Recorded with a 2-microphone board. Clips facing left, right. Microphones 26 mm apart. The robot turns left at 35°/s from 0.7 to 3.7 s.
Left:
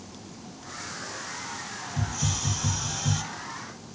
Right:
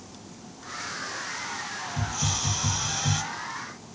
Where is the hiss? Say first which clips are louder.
Right 1 dB; 20° right, 0.9 m; by 3.2 s 60° right, 0.9 m.